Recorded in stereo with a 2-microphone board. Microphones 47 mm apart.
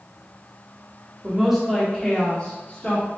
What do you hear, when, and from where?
1.2 s a woman speaking: 15° right (ahead or behind), 0.9 m; by 3.1 s 40° left (ahead or behind), 1.4 m